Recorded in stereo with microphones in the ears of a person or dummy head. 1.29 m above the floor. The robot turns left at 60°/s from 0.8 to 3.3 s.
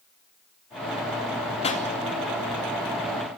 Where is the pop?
30° left (ahead or behind), 2.5 m; by 1.9 s 45° left (ahead or behind), 2.5 m.